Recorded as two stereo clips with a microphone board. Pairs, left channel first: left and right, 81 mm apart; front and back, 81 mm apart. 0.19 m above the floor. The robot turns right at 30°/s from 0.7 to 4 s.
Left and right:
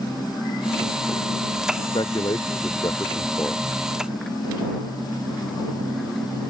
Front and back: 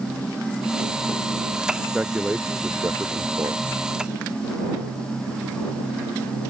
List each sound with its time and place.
1.8 s a man speaking: 100° left; by 3.6 s 155° left